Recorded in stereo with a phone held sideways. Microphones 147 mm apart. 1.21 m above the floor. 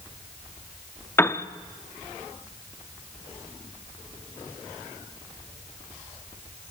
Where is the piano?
15° left (ahead or behind), 0.7 m.